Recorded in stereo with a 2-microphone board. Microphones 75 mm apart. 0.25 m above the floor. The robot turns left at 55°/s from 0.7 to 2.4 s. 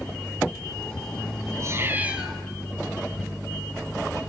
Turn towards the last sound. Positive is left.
turn(degrees=180)